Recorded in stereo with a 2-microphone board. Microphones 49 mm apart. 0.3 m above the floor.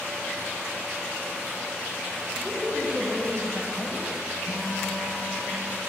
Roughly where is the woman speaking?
Right.